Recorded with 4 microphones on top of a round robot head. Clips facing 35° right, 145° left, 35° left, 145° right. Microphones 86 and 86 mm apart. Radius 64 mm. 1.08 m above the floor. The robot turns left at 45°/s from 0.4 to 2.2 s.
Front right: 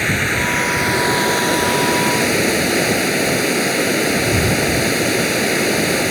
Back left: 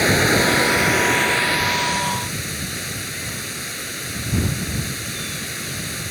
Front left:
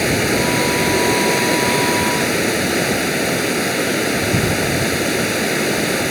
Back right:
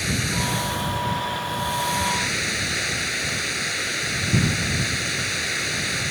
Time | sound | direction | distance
0.0 | running water | 75° left | ?